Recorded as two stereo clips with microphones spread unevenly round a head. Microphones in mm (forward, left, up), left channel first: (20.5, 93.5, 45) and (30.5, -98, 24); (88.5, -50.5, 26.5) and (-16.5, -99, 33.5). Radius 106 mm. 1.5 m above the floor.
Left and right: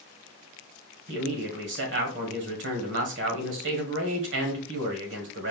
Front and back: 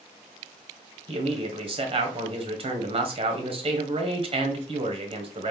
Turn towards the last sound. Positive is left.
turn(degrees=-115)